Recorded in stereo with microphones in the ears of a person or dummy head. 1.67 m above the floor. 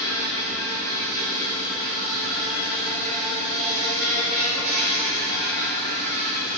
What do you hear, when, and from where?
0.0 s an insect: 40° right (ahead or behind), 1.5 m